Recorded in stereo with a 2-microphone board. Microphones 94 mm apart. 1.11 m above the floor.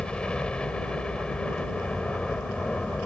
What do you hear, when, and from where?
0.0 s a helicopter: 10° left (ahead or behind)